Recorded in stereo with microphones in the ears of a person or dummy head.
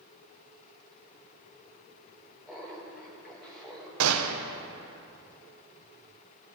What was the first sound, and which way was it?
Laughter, centre (ahead or behind).